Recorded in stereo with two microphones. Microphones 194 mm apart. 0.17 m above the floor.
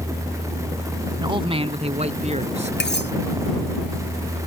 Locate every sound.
1.2 s a man speaking: 25° right (ahead or behind); by 2.7 s 35° right (ahead or behind)
2.8 s cutlery clinking: 65° left (ahead or behind)